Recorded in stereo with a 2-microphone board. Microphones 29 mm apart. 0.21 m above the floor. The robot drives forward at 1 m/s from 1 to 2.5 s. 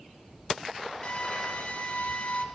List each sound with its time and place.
1.0 s a drill: 50° left (ahead or behind), 4.5 m; by 2.5 s 60° left (ahead or behind), 3.5 m